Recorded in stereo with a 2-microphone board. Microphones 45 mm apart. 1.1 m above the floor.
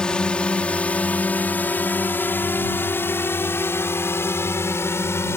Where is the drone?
20° left (ahead or behind); by 5.4 s 75° left (ahead or behind).